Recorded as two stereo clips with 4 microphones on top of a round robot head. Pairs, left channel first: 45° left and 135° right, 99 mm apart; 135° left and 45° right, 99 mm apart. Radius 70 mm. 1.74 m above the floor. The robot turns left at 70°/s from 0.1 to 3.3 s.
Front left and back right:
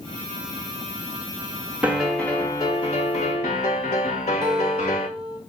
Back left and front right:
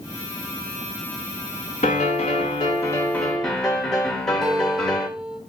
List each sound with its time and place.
1.8 s a piano: 150° left, 1.4 m; by 5.1 s 50° left, 1.4 m
4.4 s a guitar: 130° right, 1.0 m